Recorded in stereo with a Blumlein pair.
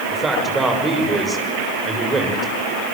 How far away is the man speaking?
About 7 m.